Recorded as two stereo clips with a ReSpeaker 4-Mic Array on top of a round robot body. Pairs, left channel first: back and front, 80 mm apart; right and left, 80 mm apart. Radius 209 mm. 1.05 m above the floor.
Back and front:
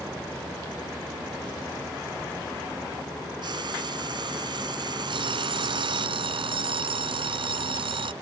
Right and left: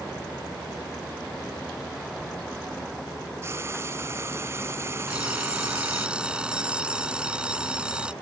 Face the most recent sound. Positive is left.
turn(degrees=10)